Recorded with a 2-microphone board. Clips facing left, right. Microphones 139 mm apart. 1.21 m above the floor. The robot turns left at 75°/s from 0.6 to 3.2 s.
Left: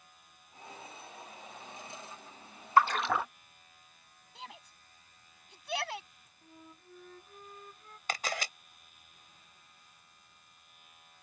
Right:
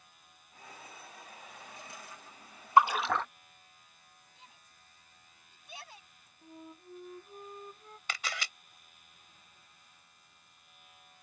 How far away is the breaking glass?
No breaking glass in this recording.